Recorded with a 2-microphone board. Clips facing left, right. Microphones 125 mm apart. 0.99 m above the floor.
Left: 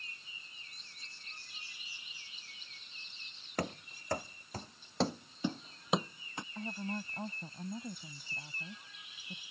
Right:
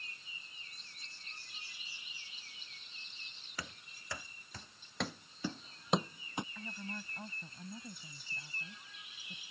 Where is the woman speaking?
30° left (ahead or behind).